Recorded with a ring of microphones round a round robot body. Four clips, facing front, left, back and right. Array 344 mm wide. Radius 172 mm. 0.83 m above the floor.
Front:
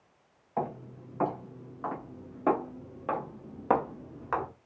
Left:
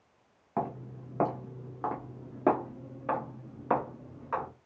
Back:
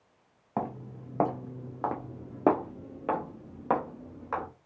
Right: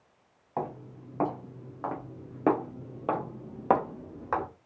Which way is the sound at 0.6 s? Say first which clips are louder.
Left 1 dB, even; 160° left.